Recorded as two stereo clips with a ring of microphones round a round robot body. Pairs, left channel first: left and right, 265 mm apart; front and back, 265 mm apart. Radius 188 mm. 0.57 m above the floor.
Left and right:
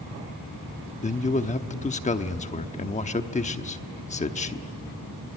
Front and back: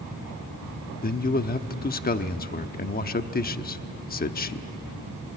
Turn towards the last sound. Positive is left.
turn(degrees=40)